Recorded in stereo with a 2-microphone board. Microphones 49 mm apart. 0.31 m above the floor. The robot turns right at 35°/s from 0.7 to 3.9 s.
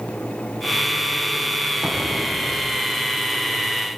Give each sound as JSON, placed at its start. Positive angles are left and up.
{"t": 1.8, "sound": "an explosion", "side_deg": -20, "distance_m": 5.0}